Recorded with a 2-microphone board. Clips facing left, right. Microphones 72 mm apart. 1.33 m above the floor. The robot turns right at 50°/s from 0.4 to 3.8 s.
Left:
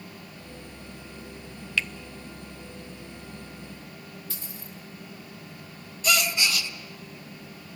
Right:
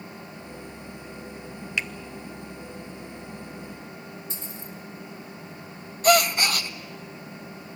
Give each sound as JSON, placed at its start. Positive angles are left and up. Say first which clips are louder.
{"t": 1.8, "sound": "a finger snap", "louder": "left 1 dB", "side_deg": -15, "distance_m": 0.5}
{"t": 4.3, "sound": "a dropped coin", "louder": "right 3 dB", "side_deg": -25, "distance_m": 2.0}
{"t": 6.0, "sound": "a gasp", "louder": "right 7 dB", "side_deg": -45, "distance_m": 0.7}